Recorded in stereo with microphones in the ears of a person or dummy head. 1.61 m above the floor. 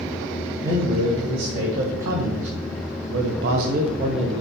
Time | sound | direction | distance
0.6 | a man speaking | 45° right (ahead or behind) | 1.9 m